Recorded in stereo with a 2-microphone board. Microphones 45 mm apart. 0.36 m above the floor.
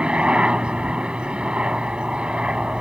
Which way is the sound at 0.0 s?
25° right (ahead or behind).